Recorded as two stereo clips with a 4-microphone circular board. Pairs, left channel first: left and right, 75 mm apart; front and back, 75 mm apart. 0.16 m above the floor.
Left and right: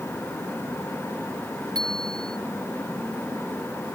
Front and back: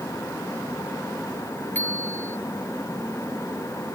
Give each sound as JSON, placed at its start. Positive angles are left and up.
{"t": 1.8, "sound": "a bicycle bell", "azimuth_deg": -65}